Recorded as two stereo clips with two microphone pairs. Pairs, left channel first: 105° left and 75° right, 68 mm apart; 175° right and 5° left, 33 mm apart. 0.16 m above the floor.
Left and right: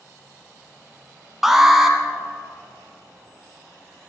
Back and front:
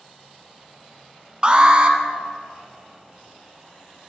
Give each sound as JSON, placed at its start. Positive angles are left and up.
{"t": 1.4, "sound": "an alarm", "azimuth_deg": 5, "distance_m": 0.7}